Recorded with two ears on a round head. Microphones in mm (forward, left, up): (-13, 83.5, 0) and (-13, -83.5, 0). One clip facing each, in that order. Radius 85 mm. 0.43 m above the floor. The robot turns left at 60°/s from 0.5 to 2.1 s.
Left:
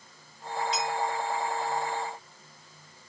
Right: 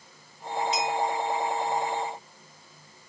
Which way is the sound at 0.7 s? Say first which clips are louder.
Right 3 dB; 45° right (ahead or behind).